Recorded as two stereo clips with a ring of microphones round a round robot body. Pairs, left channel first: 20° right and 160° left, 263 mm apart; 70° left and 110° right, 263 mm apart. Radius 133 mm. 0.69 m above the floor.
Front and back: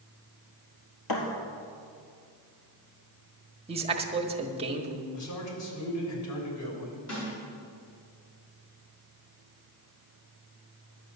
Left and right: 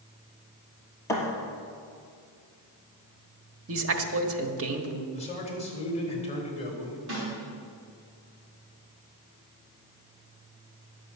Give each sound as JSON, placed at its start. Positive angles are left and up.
{"t": 1.1, "sound": "a thud", "azimuth_deg": -10, "distance_m": 2.5}
{"t": 3.7, "sound": "a man speaking", "azimuth_deg": -135, "distance_m": 1.3}
{"t": 5.1, "sound": "a man speaking", "azimuth_deg": 0, "distance_m": 3.0}
{"t": 7.1, "sound": "a snare drum", "azimuth_deg": -70, "distance_m": 5.5}